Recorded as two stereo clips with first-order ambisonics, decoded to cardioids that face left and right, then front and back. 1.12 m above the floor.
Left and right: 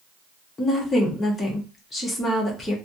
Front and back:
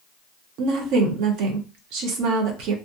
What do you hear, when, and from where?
0.6 s a woman speaking: 165° left, 0.8 m